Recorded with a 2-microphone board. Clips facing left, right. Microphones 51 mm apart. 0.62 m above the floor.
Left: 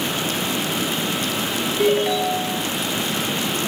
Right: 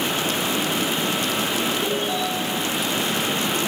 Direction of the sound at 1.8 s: 75° left (ahead or behind).